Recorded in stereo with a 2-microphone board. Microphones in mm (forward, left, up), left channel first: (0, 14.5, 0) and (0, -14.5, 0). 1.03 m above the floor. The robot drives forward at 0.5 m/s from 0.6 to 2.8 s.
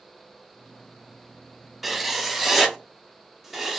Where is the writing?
5° right (ahead or behind), 0.8 m.